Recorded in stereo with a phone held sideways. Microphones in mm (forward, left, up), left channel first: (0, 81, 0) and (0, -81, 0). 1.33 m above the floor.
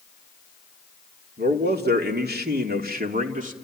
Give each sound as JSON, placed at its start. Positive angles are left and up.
{"t": 1.4, "sound": "a man speaking", "side_deg": -80, "distance_m": 3.0}